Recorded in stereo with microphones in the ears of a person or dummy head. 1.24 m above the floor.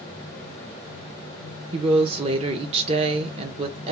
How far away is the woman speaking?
About 0.8 m.